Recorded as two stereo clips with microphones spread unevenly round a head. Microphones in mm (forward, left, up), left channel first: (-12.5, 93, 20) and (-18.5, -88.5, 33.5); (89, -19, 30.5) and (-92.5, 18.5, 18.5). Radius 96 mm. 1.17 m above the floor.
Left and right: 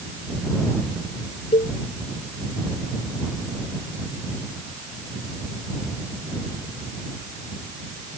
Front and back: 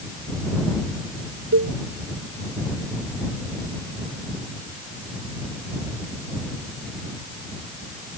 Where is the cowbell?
150° left.